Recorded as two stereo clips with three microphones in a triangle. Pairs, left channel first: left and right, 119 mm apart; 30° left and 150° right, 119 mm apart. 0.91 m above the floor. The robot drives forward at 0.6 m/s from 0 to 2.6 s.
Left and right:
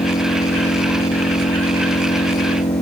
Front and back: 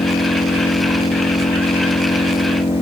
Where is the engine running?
65° left; by 2.8 s 70° left.